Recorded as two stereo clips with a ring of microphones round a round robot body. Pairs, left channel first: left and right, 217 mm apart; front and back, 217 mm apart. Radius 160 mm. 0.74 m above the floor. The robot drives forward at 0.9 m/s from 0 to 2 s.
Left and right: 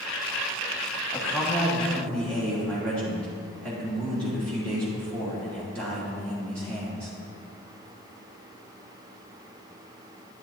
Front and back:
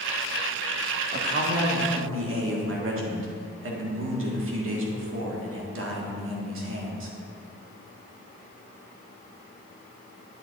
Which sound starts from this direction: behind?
A man speaking, at 1.1 s.